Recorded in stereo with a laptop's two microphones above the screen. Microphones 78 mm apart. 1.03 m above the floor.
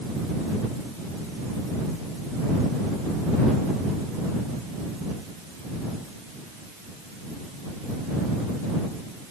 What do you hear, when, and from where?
Only background noise.